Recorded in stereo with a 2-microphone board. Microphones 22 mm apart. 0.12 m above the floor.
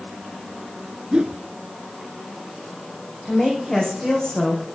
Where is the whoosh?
45° right (ahead or behind), 0.5 m.